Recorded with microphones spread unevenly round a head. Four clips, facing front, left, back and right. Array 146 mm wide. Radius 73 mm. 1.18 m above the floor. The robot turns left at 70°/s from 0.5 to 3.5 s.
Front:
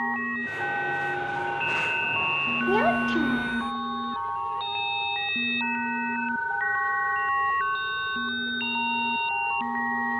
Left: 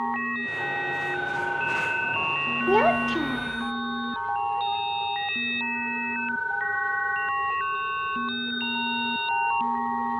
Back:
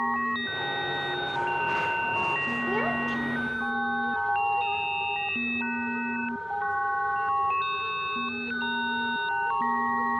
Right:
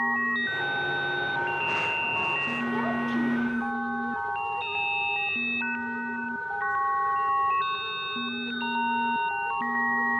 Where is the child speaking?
80° left, 1.1 m; by 3.7 s 25° left, 1.1 m.